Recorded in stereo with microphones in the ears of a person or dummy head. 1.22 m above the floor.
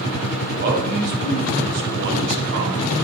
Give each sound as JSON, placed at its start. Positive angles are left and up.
{"t": 0.6, "sound": "a man speaking", "side_deg": -50, "distance_m": 3.5}